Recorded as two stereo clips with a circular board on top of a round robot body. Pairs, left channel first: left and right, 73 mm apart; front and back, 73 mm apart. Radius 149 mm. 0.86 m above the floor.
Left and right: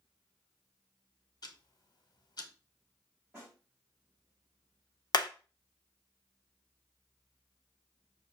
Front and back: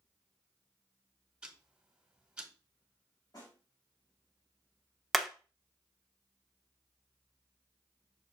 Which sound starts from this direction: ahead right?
A snare drum, at 3.3 s.